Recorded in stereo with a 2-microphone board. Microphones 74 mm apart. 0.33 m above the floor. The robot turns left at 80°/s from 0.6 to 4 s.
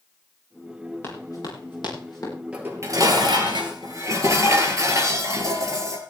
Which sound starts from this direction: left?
Running footsteps, at 1.0 s.